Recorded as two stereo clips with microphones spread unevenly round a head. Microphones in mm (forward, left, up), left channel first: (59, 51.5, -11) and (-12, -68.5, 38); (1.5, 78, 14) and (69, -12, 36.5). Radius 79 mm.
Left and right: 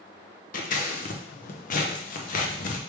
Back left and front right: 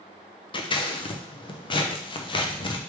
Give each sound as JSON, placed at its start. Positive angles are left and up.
{"t": 0.5, "sound": "scissors", "azimuth_deg": 85, "distance_m": 0.8}